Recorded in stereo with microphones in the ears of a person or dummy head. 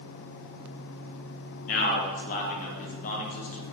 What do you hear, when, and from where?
1.7 s a man speaking: 40° left (ahead or behind), 0.5 m